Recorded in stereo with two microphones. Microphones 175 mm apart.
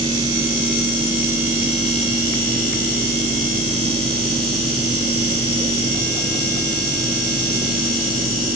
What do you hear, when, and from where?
Only background noise.